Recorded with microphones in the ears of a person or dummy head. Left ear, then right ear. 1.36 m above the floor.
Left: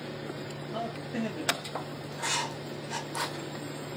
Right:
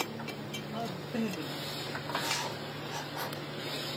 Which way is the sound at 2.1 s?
30° left (ahead or behind).